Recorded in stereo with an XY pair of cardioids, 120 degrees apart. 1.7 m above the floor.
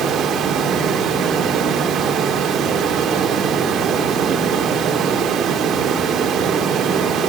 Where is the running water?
55° right, 3.5 m.